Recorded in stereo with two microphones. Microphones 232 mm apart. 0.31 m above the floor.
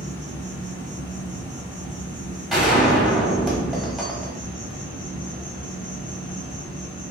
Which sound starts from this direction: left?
An insect, at 0.0 s.